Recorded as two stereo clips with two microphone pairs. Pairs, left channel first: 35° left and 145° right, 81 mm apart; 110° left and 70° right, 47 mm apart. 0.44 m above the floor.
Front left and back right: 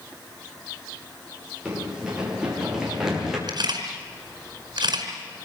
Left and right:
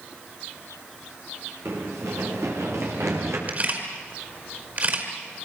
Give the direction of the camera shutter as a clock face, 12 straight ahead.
4 o'clock.